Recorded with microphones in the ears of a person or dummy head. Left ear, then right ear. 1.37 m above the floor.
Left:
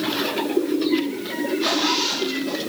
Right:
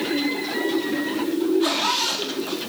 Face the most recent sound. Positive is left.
turn(degrees=-35)  # may be behind; listen again after turning